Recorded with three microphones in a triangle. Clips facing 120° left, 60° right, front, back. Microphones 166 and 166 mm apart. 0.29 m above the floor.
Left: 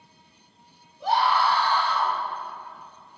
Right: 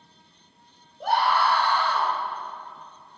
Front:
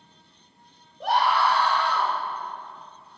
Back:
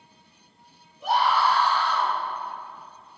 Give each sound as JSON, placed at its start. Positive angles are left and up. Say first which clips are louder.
{"t": 1.0, "sound": "a scream", "louder": "even, even", "azimuth_deg": -20, "distance_m": 5.5}